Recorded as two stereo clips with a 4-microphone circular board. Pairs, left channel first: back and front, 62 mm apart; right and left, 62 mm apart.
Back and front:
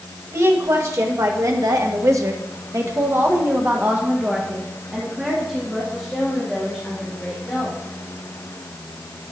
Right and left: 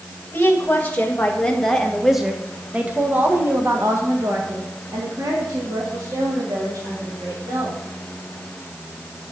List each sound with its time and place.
0.3 s a woman speaking: 35° right, 1.8 m; by 7.8 s 90° left, 3.5 m